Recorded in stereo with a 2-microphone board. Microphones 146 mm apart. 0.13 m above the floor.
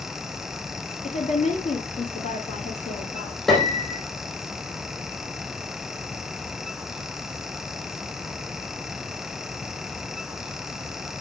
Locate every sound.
1.0 s a woman speaking: 55° left (ahead or behind), 2 m
3.5 s a piano: centre (ahead or behind), 2.5 m